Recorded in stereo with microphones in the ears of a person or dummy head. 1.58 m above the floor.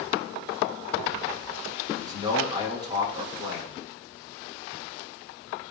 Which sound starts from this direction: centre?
A man speaking, at 1.9 s.